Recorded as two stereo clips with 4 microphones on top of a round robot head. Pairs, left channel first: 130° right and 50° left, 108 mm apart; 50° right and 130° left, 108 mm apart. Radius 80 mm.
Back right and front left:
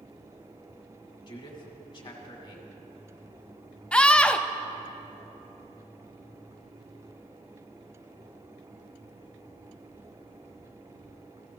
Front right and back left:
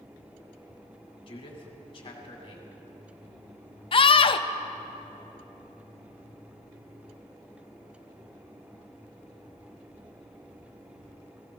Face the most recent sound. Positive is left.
turn(degrees=-50)